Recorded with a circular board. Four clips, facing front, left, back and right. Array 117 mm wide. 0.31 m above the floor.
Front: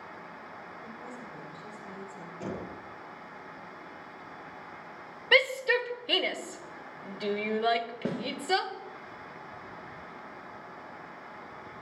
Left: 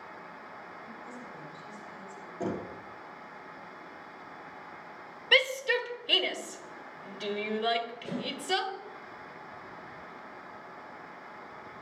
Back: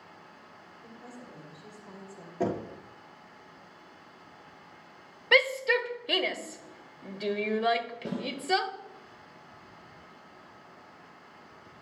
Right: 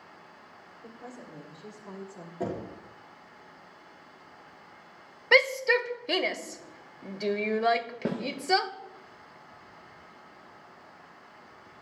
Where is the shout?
100° right, 1.1 m.